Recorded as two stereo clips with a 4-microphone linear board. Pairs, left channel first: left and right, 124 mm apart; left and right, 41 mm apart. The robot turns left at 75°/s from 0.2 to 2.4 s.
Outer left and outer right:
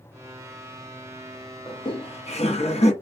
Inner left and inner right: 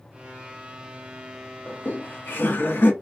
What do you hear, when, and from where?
1.7 s laughter: 135° left, 0.7 m; by 2.9 s 80° left, 0.7 m